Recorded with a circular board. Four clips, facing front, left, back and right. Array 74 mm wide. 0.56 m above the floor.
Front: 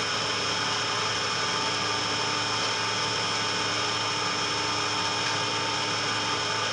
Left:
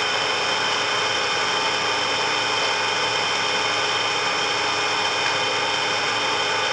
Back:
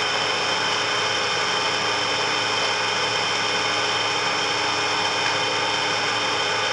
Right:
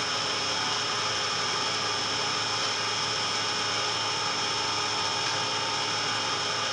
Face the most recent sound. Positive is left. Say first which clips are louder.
# left 8 dB, back 6 dB
turn(degrees=130)